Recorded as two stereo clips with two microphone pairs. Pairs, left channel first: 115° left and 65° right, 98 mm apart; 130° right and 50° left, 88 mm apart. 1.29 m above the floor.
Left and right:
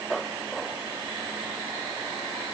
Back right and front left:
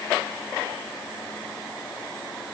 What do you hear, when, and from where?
Only background noise.